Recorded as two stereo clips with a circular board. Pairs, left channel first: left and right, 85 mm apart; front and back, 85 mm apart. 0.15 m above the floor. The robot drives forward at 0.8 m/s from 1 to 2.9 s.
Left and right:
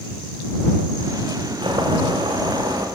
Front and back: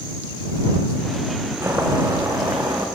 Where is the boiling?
120° right, 6 m; by 2.9 s 130° right, 6.5 m.